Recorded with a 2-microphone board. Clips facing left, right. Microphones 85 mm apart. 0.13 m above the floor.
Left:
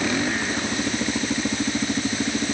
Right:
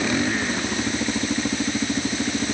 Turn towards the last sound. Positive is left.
No sound to turn to.